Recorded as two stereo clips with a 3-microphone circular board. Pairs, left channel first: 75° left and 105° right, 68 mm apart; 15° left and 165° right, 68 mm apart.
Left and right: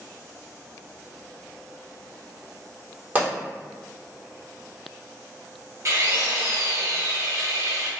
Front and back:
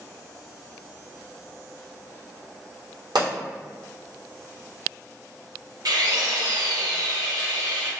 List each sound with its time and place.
3.1 s a pop: 170° right, 1.5 m
5.8 s a drill: 150° right, 0.8 m